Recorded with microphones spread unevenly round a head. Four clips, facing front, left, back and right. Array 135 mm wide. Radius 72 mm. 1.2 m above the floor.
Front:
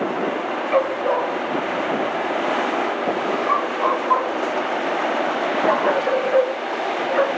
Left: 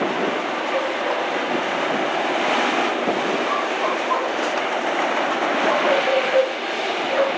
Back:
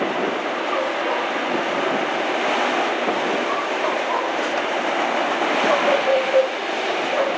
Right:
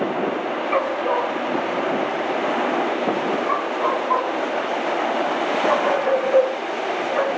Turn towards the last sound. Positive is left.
turn(degrees=35)